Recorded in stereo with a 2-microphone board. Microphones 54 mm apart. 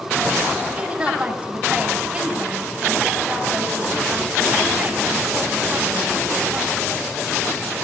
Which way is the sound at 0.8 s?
20° right (ahead or behind).